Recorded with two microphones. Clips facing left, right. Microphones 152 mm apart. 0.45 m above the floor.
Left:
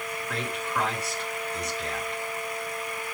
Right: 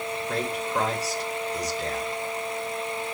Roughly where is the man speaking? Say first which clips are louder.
Right 4 dB; right.